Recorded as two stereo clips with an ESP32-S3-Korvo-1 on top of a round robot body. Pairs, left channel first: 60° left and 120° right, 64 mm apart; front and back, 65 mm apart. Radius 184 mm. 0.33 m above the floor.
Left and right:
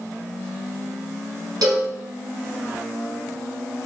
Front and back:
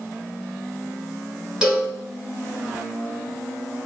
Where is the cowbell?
100° right, 1.0 m.